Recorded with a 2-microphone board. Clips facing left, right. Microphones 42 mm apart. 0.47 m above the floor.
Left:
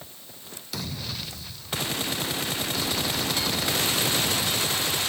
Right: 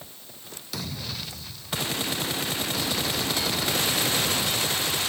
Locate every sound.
Only background noise.